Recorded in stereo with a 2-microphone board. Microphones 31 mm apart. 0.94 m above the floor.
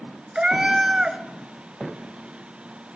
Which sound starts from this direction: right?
A cat meowing, at 0.3 s.